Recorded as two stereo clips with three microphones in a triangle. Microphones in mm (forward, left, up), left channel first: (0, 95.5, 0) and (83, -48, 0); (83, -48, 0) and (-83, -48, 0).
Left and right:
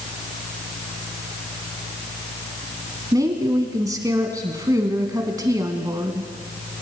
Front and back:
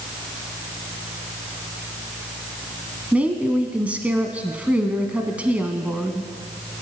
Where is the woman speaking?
105° right, 1.2 m.